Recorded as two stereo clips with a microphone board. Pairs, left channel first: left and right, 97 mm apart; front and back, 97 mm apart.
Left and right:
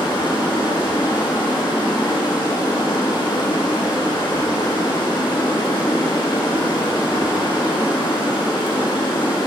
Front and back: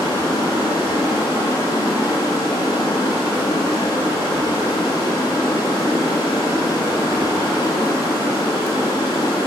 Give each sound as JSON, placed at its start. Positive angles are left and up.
{"t": 0.0, "sound": "running water", "azimuth_deg": 55, "distance_m": 2.5}